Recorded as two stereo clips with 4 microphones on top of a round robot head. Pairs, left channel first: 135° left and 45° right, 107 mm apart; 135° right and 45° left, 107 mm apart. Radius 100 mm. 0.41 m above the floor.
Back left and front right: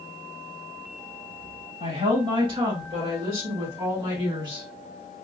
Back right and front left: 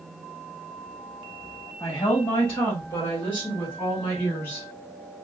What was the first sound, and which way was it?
A woman speaking, 70° right.